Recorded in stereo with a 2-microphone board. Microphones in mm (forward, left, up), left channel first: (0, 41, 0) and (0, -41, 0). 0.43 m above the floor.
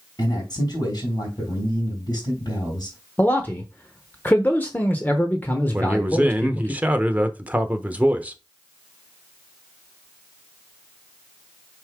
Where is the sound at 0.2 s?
55° left (ahead or behind), 3.5 m.